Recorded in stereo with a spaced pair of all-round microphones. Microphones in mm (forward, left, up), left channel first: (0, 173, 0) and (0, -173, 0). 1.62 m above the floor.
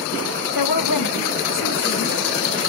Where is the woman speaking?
85° left, 1.0 m; by 2.6 s 30° left (ahead or behind), 3 m.